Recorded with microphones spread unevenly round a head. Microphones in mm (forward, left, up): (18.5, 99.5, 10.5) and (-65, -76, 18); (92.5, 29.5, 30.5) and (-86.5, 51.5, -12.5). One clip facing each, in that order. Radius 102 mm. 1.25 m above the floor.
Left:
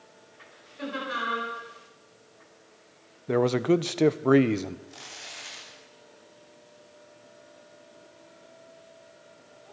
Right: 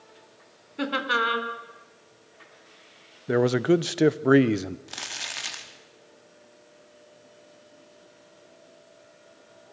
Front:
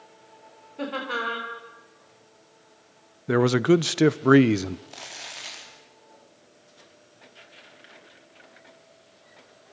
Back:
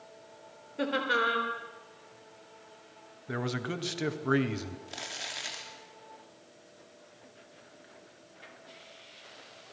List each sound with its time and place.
0.8 s laughter: 105° right, 4 m
3.3 s a man speaking: 35° right, 0.6 m
4.9 s crumpling: 105° right, 3 m